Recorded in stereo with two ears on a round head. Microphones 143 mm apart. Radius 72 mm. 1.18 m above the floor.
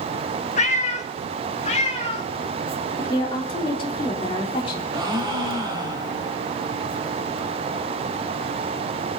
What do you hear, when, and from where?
0.6 s a cat meowing: 45° left (ahead or behind), 0.9 m; by 2.3 s 40° left (ahead or behind), 1.9 m
3.0 s a woman speaking: 30° left (ahead or behind), 3.5 m
4.9 s a gasp: 25° right (ahead or behind), 4 m